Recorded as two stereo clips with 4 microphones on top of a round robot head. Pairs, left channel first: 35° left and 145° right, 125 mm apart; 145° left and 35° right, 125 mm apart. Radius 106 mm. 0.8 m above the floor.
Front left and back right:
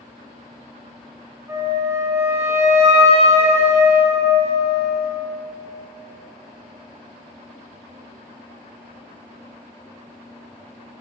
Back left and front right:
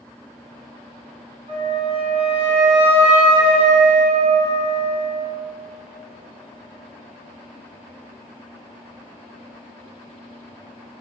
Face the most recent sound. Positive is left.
turn(degrees=-80)